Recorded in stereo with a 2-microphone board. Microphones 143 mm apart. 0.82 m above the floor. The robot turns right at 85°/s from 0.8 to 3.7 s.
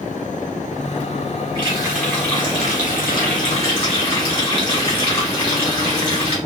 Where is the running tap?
40° right, 1.3 m; by 6.4 s 140° left, 1.3 m.